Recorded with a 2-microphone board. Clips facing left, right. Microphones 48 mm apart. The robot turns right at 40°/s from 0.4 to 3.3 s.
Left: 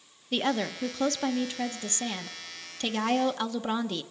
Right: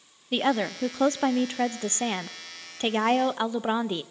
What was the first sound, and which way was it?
A woman speaking, 155° right.